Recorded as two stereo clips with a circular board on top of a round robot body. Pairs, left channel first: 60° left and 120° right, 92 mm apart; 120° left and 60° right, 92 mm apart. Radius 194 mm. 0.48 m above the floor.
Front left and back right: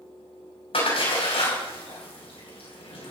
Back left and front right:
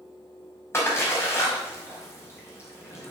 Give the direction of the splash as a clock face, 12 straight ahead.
10 o'clock.